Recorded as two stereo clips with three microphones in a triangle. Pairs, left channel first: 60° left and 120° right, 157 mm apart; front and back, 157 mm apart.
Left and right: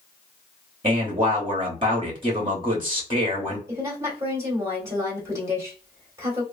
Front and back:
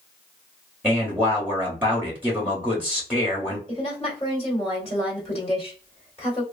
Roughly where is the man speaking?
Right.